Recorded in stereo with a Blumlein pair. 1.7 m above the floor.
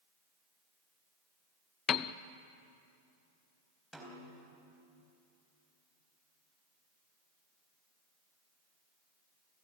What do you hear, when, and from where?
1.9 s a piano: 30° left, 0.6 m
3.9 s a snare drum: straight ahead, 4 m